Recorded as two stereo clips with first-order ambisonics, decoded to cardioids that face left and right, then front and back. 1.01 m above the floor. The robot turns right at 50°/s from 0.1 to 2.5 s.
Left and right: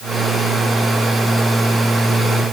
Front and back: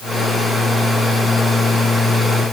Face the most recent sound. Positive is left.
No sound to turn to.